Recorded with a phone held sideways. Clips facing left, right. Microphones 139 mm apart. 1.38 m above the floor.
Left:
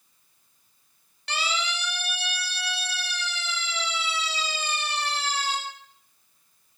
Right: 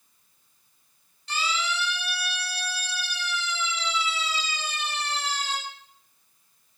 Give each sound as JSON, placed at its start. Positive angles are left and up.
{"t": 1.3, "sound": "a siren", "side_deg": 70, "distance_m": 8.5}